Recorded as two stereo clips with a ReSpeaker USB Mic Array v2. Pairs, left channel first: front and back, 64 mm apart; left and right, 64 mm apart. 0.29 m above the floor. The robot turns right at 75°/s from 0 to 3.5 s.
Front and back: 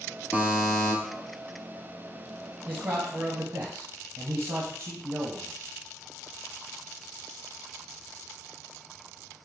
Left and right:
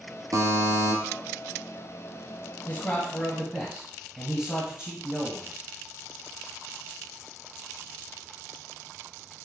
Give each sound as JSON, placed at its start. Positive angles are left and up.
{"t": 0.3, "sound": "a buzzer", "azimuth_deg": -115, "distance_m": 0.8}
{"t": 2.7, "sound": "a man speaking", "azimuth_deg": 125, "distance_m": 1.1}